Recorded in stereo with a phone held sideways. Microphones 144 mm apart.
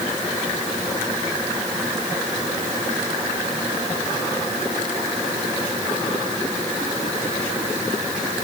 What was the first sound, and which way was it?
Only background noise.